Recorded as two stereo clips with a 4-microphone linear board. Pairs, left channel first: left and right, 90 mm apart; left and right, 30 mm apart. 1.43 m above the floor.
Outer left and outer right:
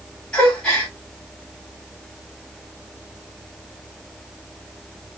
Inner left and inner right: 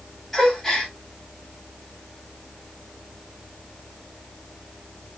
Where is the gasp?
10° left (ahead or behind), 4 m.